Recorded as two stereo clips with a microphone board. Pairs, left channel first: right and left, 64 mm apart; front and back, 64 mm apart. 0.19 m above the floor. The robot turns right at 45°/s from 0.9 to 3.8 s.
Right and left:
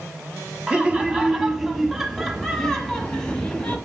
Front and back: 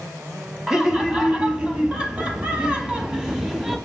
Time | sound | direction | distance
0.7 | laughter | 125° left | 1.0 m